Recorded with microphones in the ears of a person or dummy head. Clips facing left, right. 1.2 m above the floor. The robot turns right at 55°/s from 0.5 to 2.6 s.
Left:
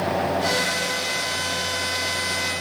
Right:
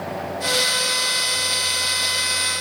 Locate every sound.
Only background noise.